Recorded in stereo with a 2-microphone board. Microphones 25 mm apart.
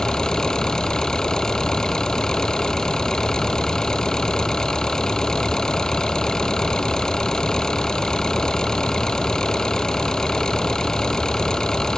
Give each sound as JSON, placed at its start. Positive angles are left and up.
{"t": 0.0, "sound": "an engine running", "side_deg": 25}